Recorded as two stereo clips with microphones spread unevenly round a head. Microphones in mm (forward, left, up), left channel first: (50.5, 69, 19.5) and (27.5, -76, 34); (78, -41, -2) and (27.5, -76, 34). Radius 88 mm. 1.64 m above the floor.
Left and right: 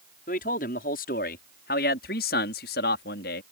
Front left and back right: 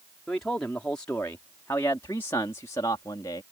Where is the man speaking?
120° left; by 3.4 s 90° left.